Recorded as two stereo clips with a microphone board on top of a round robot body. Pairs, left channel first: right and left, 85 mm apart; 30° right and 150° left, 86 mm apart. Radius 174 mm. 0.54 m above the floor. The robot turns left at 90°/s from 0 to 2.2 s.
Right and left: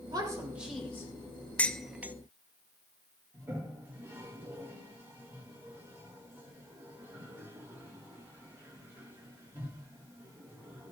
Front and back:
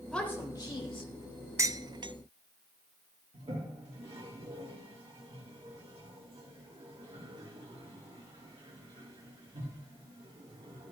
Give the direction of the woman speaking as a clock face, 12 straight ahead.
10 o'clock.